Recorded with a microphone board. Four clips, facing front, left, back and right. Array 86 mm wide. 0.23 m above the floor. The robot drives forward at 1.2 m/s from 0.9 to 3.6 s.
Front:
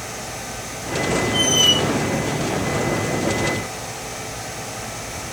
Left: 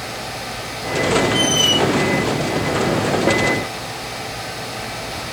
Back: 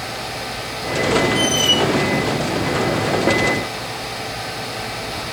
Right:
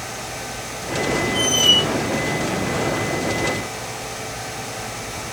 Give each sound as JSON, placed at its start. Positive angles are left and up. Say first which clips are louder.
{"t": 1.3, "sound": "a squeak", "louder": "left 3 dB, back 2 dB", "azimuth_deg": 35, "distance_m": 6.0}